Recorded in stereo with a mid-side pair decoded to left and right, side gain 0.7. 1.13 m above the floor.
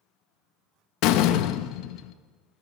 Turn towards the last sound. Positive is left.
turn(degrees=65)